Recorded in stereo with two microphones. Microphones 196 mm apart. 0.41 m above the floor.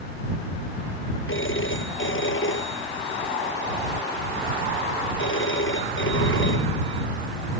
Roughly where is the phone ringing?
Left.